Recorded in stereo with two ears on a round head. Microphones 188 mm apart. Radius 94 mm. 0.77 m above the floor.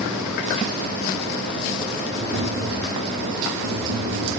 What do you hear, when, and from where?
2.1 s tapping: 60° right (ahead or behind), 3 m